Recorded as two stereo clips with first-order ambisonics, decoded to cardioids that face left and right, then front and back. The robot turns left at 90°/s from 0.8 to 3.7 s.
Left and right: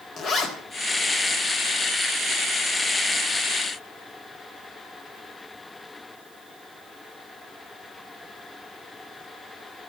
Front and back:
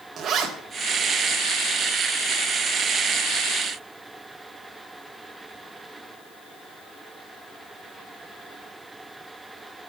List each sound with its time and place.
0.2 s a zipper: 135° left, 1.4 m